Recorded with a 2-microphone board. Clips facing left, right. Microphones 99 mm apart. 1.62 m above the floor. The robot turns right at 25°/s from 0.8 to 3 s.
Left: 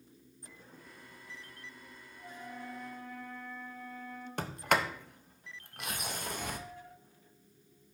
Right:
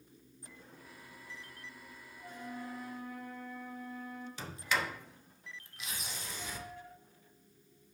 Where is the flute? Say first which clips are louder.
Right 1 dB; 5° left (ahead or behind), 2 m; by 4.3 s 10° right (ahead or behind), 2 m.